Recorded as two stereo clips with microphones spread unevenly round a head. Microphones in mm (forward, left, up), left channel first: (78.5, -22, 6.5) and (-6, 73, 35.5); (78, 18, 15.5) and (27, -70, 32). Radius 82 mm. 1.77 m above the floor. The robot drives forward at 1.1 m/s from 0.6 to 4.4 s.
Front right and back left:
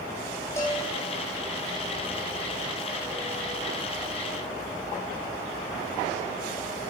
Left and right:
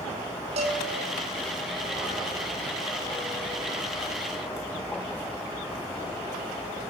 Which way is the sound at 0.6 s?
125° right.